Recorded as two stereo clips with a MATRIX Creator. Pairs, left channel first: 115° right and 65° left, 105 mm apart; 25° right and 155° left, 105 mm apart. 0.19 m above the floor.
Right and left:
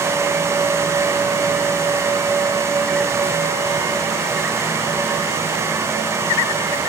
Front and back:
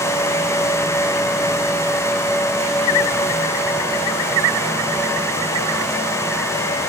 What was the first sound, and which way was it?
Only background noise.